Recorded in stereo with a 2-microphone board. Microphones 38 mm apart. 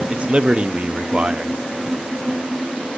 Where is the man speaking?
30° right (ahead or behind), 0.7 m.